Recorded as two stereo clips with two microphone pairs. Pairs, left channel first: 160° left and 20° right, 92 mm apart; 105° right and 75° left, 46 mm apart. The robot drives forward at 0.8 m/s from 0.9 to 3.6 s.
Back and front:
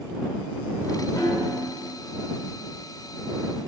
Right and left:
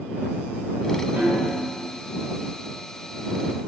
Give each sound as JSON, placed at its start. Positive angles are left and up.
{"t": 1.2, "sound": "a snare drum", "azimuth_deg": 115, "distance_m": 1.8}